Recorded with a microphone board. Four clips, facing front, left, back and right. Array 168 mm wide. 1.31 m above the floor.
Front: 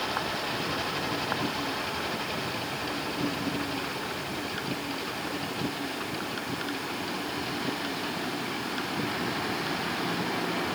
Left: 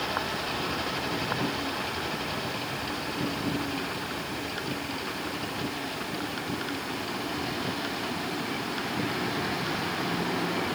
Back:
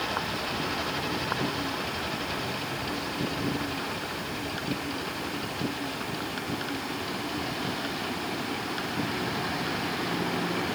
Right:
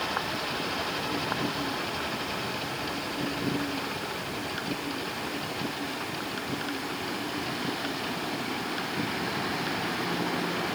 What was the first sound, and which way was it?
Only background noise.